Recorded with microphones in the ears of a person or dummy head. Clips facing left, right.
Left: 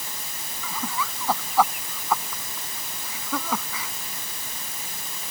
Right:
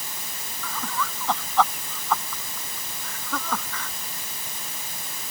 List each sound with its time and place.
0.6 s laughter: 10° left (ahead or behind)